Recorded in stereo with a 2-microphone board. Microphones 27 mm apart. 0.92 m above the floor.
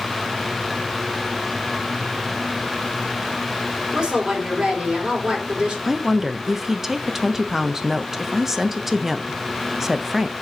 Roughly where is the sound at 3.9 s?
Right.